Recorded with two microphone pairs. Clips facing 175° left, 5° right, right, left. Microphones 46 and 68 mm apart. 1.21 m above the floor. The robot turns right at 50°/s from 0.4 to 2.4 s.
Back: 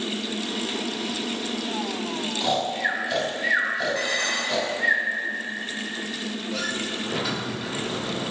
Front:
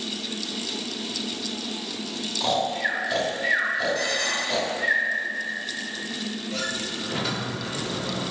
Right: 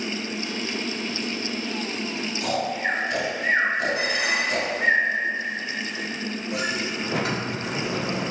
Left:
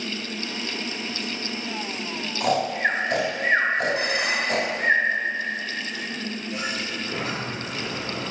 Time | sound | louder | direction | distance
2.4 | snoring | front 1 dB, left 4 dB | 90° left | 1.3 m
4.0 | dishes clattering | back 1 dB, even | 115° left | 1.5 m
6.5 | a sliding door | back 2 dB, right 4 dB | 95° right | 0.7 m